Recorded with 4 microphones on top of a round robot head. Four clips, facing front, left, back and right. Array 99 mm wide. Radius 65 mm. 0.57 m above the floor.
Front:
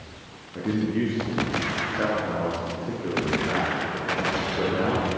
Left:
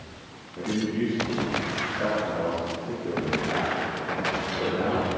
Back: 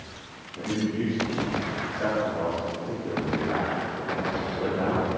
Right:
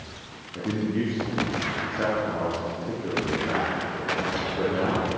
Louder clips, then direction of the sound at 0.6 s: Even, front 3 dB; 30° right.